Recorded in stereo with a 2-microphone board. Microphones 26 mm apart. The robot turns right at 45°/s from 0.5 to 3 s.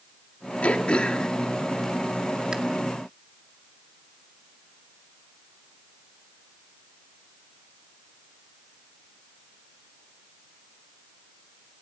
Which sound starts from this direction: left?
Throat clearing, at 0.6 s.